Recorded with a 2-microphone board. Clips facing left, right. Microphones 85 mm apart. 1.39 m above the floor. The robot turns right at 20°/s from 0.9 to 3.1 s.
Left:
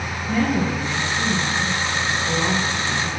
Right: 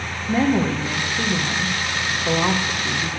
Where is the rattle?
No rattle in this recording.